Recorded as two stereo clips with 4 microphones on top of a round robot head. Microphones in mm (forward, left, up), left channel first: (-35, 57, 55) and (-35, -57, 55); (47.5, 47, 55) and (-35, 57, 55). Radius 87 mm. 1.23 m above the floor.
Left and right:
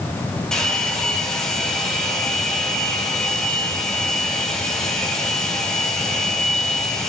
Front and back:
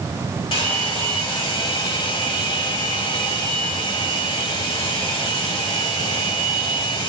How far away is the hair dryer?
About 2.5 m.